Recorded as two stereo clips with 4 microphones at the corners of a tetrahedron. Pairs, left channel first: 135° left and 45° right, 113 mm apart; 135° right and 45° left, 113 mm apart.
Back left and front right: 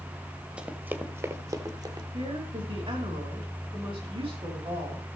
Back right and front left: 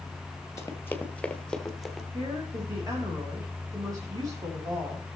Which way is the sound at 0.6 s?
115° right.